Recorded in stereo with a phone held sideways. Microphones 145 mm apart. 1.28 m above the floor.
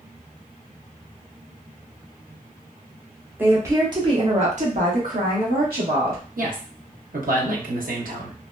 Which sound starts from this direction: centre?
A woman speaking, at 3.4 s.